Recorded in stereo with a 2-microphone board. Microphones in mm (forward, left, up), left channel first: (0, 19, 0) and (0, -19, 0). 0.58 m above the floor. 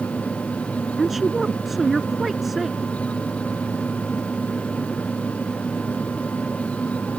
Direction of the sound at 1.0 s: Centre (ahead or behind).